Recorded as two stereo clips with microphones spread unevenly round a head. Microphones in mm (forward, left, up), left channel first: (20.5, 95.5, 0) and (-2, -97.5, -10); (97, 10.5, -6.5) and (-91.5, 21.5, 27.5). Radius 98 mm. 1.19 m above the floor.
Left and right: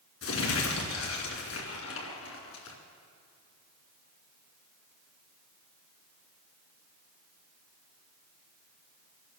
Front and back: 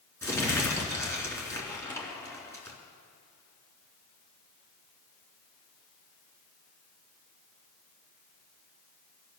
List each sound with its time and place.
0.2 s crumpling: 75° left, 3 m